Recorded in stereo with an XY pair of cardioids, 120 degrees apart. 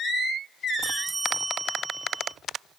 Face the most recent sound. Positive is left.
turn(degrees=-25)